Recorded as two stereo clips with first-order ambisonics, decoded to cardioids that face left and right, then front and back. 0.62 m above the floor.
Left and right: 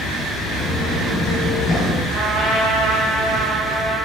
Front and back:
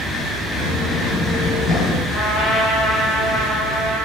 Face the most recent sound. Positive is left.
turn(degrees=-45)